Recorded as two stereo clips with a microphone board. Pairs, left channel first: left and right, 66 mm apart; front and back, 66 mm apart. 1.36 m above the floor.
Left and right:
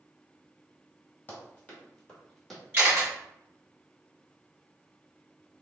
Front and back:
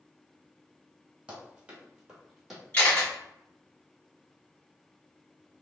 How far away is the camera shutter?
About 1.6 m.